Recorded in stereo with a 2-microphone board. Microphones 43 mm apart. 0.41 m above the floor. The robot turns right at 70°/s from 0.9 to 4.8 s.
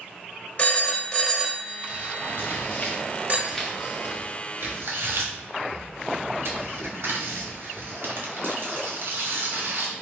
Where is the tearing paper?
65° left (ahead or behind), 1.3 m; by 9.9 s 65° right (ahead or behind), 1.3 m.